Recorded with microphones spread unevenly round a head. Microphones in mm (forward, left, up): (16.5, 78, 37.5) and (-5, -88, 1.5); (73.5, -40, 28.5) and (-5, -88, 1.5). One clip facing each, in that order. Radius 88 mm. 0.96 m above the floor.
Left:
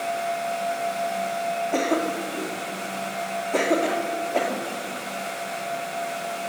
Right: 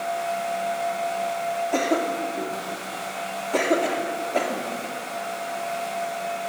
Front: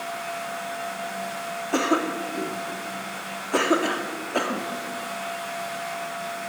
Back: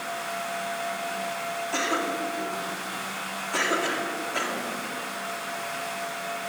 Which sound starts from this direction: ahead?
A cough, at 1.7 s.